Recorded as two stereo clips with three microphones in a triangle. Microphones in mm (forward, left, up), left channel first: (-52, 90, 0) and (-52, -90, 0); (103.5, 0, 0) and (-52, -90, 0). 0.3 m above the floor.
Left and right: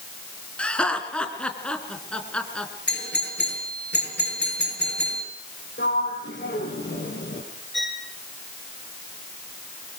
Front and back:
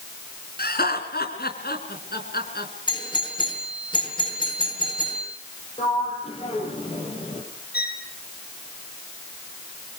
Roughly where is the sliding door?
Left.